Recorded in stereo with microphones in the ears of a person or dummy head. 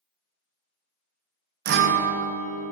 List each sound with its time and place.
1.6 s a guitar: 55° right (ahead or behind), 0.6 m